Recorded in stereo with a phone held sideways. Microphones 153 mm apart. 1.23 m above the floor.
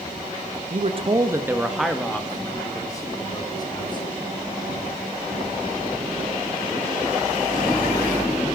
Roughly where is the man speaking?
Right.